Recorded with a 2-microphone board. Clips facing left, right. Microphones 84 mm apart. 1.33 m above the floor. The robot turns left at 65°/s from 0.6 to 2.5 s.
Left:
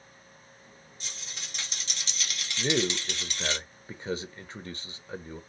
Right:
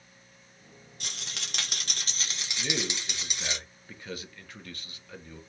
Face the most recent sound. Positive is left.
turn(degrees=30)  # may be behind; listen again after turning